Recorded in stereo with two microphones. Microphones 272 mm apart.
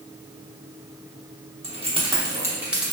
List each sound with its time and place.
1.6 s keys jangling: 25° right (ahead or behind), 0.9 m; by 2.9 s centre (ahead or behind), 0.8 m